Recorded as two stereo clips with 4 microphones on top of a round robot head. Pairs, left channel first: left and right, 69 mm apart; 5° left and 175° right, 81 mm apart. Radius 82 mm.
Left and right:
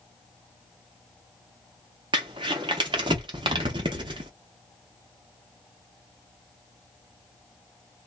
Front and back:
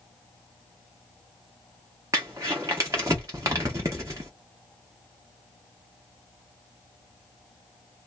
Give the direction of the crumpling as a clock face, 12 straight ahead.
4 o'clock.